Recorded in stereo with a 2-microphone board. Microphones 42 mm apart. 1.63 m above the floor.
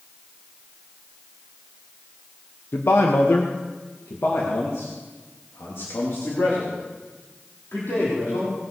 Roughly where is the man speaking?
Left.